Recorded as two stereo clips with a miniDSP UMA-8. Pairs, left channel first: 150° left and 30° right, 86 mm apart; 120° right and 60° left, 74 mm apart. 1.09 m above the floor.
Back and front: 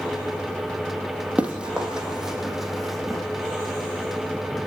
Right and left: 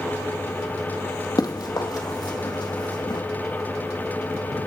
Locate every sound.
1.4 s running footsteps: 105° right, 2.5 m; by 3.2 s 120° right, 4 m